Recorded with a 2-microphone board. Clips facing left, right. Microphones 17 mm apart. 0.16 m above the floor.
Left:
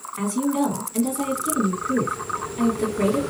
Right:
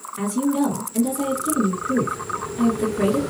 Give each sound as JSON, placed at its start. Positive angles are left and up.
{"t": 0.2, "sound": "a woman speaking", "side_deg": 20, "distance_m": 1.7}